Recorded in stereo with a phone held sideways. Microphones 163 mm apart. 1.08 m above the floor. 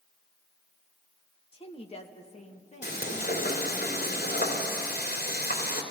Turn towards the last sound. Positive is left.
turn(degrees=85)